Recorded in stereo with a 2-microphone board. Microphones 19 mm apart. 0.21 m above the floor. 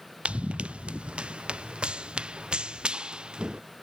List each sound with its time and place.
0.2 s running footsteps: 80° right; by 3.6 s 50° right (ahead or behind)